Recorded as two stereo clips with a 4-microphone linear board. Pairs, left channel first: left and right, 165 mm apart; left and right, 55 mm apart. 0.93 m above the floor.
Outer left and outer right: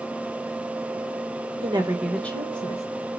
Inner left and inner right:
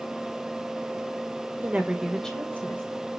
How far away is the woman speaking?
About 1.2 m.